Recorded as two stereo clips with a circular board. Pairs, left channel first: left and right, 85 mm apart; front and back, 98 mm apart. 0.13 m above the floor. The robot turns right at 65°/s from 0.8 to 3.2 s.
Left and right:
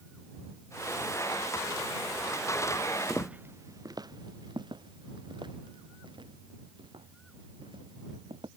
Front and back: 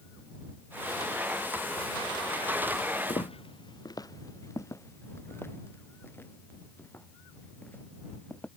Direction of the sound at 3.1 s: Straight ahead.